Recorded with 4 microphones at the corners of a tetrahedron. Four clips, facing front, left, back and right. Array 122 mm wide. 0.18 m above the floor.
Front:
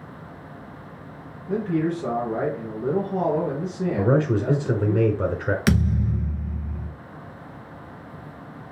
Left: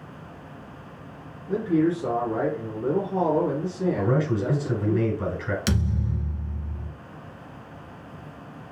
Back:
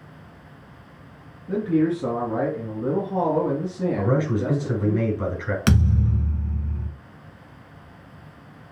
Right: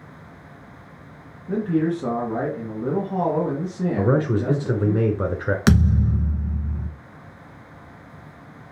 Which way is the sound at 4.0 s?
60° right.